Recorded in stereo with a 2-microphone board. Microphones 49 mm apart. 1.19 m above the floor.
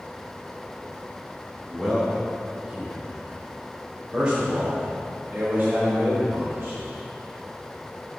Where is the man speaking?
5° left (ahead or behind), 3 m; by 6.8 s 45° right (ahead or behind), 3.5 m.